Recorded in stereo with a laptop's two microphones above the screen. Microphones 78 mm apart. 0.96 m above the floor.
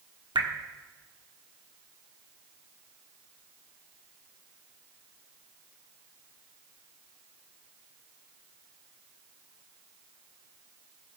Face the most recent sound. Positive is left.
turn(degrees=-80)